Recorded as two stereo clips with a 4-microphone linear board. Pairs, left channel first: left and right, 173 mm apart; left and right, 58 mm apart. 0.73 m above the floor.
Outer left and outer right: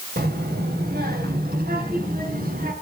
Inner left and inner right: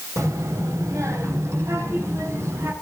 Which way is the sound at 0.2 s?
70° right (ahead or behind).